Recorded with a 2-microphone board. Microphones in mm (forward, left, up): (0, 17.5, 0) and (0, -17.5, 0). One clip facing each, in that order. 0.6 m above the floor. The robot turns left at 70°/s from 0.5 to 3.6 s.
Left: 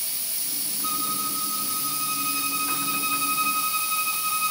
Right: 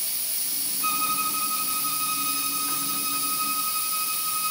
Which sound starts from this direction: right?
A violin, at 0.8 s.